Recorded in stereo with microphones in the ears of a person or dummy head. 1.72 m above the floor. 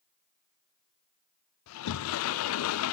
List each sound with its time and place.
1.7 s a sliding door: 80° left, 0.5 m